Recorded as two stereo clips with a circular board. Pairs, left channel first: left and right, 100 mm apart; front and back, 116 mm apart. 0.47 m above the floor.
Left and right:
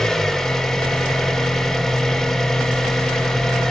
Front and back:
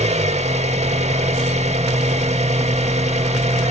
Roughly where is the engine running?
Behind.